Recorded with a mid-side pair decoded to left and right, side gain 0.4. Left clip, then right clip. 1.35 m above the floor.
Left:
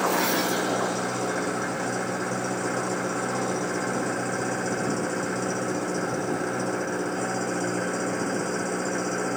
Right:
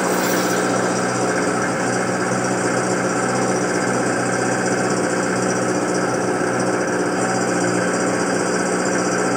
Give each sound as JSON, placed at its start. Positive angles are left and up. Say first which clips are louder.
{"t": 0.0, "sound": "an engine running", "louder": "right 5 dB", "azimuth_deg": -60}